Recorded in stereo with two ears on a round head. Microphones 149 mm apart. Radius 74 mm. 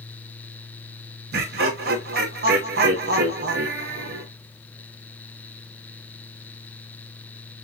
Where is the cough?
I don't hear a cough.